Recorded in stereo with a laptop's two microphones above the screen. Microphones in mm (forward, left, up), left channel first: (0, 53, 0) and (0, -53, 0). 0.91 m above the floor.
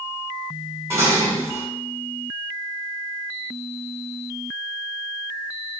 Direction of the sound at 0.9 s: 25° right (ahead or behind).